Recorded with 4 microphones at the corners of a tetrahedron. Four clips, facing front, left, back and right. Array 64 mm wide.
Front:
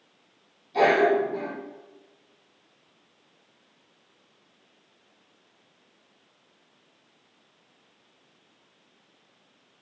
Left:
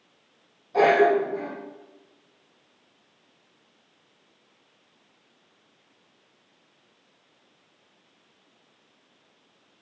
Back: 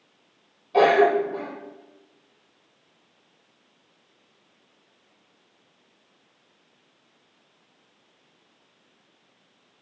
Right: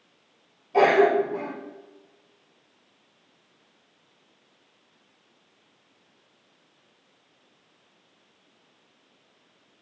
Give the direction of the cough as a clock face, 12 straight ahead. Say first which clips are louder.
Even, back 3 dB; 6 o'clock.